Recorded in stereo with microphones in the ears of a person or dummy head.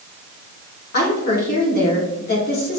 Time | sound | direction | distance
0.9 | a woman speaking | 50° left (ahead or behind) | 3.5 m